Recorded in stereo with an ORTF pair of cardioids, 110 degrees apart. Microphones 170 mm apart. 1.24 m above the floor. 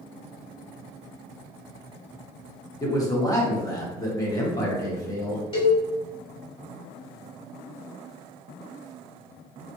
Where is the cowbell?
35° left, 1.7 m.